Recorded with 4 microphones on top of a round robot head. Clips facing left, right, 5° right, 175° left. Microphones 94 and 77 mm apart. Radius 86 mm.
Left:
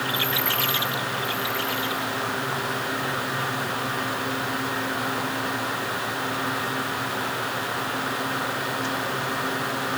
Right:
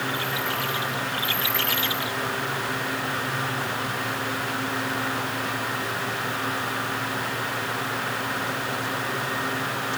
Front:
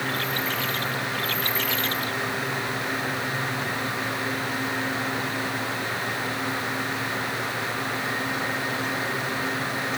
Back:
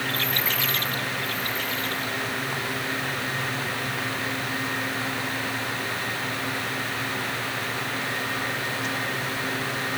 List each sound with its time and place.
Only background noise.